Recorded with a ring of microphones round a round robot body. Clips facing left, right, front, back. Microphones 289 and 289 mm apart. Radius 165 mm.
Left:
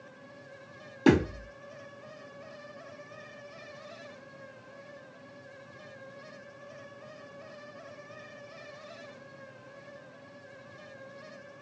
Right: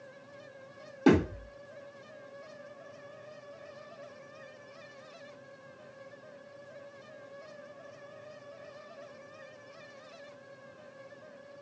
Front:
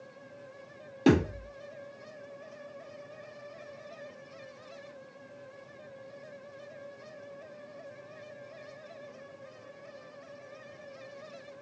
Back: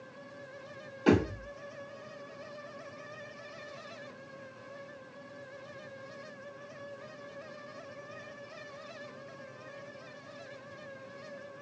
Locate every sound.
1.1 s a thud: 25° left, 2.5 m